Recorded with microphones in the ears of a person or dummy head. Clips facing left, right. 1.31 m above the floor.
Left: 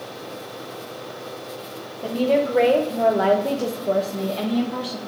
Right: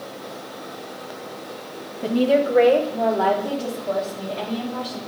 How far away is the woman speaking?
About 0.9 m.